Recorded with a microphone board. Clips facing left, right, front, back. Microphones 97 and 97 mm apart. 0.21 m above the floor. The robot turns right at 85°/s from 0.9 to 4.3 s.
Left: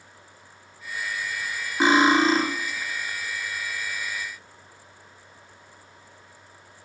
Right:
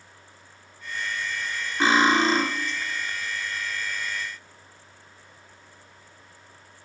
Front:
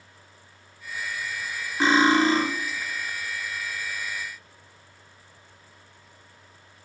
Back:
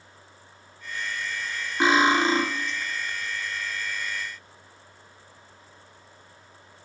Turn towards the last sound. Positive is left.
turn(degrees=-25)